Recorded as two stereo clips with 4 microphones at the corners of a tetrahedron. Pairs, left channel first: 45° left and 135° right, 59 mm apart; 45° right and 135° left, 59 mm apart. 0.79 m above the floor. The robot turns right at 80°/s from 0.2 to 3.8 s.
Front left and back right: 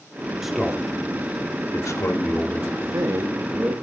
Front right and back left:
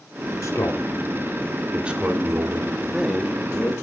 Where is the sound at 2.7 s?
160° right, 1.4 m; by 3.7 s 80° right, 1.4 m.